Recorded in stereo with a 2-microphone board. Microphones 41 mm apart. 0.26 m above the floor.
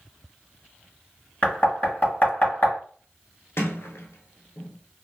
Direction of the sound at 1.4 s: 45° left (ahead or behind).